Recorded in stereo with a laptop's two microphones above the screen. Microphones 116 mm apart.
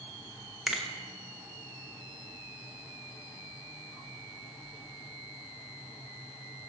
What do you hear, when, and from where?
0.7 s a finger snap: 5° right (ahead or behind), 0.9 m